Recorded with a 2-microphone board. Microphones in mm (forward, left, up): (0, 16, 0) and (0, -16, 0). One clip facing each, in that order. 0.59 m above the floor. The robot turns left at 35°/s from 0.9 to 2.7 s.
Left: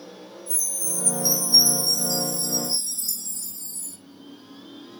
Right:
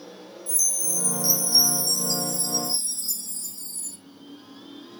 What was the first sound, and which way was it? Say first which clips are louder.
A chime: right 4 dB; 85° right.